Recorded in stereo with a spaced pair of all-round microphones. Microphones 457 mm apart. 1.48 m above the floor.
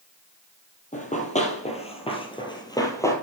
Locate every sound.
0.9 s running footsteps: 20° left (ahead or behind), 1.7 m; by 3.1 s 5° left (ahead or behind), 1.5 m